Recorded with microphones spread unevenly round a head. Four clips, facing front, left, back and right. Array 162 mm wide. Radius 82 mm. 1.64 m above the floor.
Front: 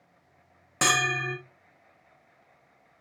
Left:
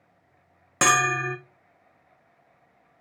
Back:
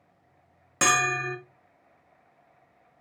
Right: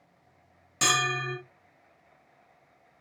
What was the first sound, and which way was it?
A bell, 75° left.